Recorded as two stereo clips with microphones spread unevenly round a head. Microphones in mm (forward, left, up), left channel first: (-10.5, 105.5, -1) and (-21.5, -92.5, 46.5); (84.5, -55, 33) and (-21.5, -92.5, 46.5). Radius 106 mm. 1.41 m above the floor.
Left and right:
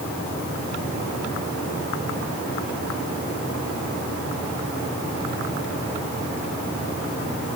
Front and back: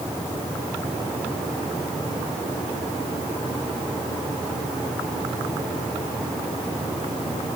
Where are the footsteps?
I don't hear footsteps.